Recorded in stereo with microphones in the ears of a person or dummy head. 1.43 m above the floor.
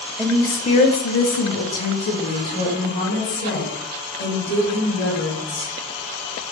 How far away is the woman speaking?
About 0.5 m.